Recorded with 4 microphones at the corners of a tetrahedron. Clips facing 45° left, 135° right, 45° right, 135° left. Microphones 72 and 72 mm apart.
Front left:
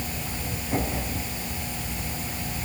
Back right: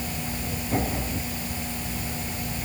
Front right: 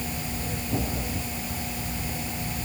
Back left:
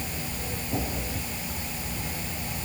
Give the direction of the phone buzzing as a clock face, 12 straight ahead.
I don't hear a phone buzzing.